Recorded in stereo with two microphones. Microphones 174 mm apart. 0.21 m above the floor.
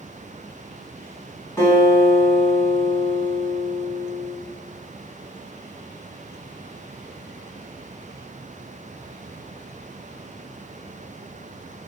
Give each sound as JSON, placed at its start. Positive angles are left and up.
{"t": 1.6, "sound": "a guitar", "side_deg": 20, "distance_m": 1.9}